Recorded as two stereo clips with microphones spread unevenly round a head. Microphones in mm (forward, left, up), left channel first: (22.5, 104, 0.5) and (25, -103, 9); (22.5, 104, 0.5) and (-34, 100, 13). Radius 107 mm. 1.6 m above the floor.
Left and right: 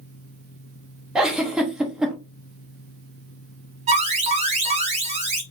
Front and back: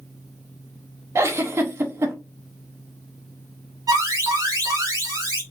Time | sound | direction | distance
1.1 | a giggle | 175° right | 0.7 m
3.9 | an alarm | 150° right | 1.2 m